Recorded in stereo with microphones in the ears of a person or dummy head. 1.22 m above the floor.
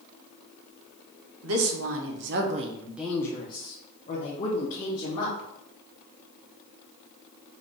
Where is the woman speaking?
70° right (ahead or behind), 1.0 m; by 5.5 s 50° left (ahead or behind), 1.9 m.